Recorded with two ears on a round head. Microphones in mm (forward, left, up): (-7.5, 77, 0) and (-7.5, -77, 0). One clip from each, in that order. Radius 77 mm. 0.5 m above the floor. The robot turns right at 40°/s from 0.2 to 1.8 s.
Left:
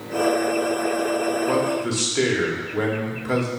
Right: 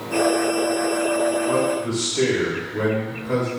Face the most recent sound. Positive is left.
turn(degrees=40)  # may be behind; listen again after turning